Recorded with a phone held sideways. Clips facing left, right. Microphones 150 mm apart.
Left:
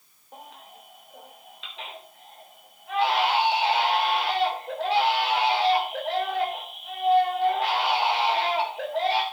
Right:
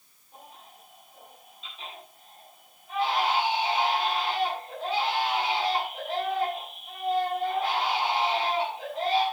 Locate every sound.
0.3 s a baby crying: 85° left, 4 m